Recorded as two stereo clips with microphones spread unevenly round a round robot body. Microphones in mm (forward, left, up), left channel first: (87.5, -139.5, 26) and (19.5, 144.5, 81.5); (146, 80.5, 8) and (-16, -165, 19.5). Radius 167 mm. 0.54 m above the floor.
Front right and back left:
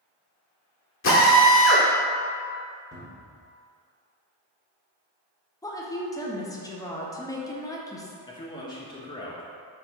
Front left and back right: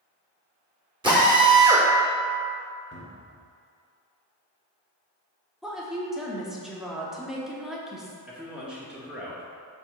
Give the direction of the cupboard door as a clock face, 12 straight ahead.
12 o'clock.